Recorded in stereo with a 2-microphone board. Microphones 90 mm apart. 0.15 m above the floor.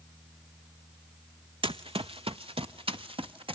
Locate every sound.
1.6 s running footsteps: 70° right (ahead or behind), 0.6 m; by 3.6 s 75° right (ahead or behind), 1.6 m